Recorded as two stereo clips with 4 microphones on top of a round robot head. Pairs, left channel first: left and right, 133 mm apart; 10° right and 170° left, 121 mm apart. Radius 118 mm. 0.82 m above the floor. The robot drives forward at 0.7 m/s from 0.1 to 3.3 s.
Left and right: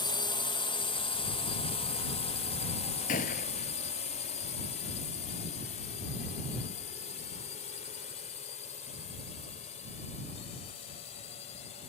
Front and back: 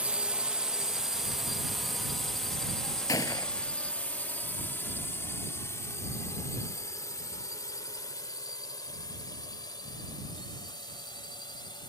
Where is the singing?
I don't hear singing.